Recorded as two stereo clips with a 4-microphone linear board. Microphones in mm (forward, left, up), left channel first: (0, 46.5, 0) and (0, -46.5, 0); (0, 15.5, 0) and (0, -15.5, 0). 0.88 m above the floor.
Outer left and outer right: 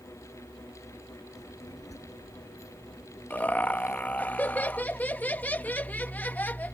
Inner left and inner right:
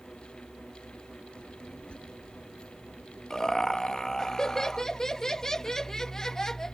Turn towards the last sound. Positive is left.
turn(degrees=15)  # may be behind; listen again after turning